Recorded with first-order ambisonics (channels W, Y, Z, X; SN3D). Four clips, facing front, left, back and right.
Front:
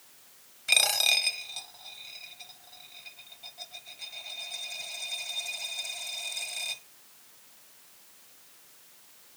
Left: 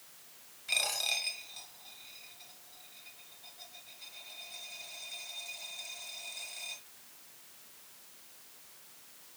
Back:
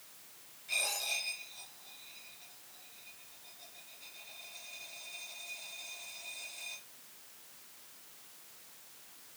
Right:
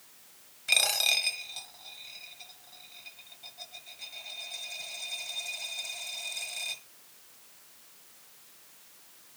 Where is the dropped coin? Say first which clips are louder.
Right 7 dB, front 11 dB; 35° right, 1.1 m.